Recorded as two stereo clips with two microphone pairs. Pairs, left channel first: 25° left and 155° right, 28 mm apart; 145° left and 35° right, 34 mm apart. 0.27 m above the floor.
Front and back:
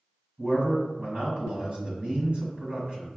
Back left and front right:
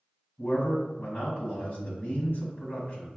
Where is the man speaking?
165° left, 1.8 m.